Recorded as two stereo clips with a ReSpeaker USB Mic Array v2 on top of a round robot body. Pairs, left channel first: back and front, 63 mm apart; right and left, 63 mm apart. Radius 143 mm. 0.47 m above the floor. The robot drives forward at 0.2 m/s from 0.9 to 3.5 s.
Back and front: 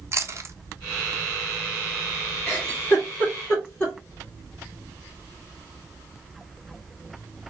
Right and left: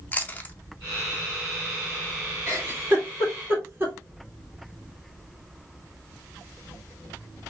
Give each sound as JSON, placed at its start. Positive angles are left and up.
{"t": 0.1, "sound": "chewing", "azimuth_deg": -30, "distance_m": 0.7}
{"t": 2.5, "sound": "a giggle", "azimuth_deg": 125, "distance_m": 1.7}